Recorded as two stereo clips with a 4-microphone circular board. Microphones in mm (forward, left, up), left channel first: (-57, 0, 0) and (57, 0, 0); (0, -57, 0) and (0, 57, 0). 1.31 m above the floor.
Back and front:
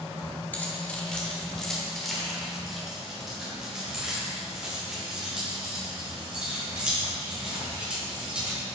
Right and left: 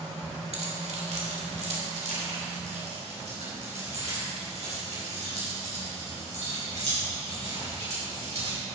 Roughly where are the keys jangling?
Left.